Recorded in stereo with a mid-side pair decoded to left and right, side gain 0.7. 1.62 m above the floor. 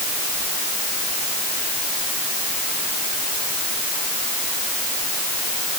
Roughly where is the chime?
I don't hear a chime.